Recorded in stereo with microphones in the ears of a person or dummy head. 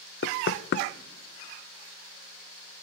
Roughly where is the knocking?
Left.